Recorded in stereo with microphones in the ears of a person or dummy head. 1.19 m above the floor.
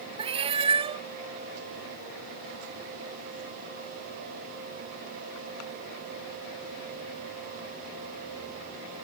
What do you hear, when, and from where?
0.2 s a cat meowing: 20° right (ahead or behind)